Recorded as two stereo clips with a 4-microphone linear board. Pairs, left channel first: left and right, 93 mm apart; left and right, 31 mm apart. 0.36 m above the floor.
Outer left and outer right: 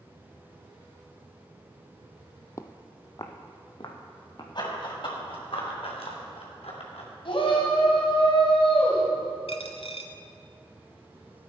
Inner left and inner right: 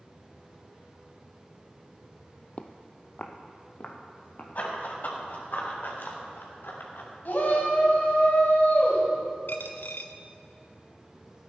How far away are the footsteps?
About 0.6 m.